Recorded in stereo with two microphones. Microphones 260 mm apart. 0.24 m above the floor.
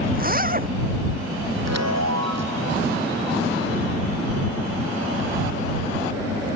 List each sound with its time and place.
0.1 s a zipper: 35° right (ahead or behind)
1.6 s a chime: 80° right